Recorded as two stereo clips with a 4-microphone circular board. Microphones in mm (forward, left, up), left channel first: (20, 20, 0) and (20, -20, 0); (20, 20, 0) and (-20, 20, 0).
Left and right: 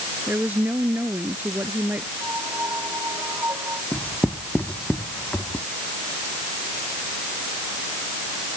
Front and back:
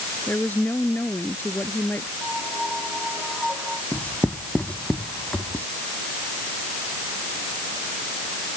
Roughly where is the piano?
Right.